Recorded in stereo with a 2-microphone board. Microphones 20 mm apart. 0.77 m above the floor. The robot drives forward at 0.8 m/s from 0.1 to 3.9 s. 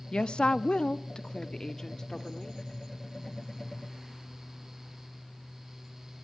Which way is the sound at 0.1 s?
55° left (ahead or behind).